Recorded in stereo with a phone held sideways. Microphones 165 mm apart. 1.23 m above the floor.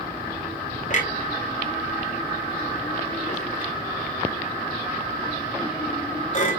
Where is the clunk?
50° left (ahead or behind), 2.5 m.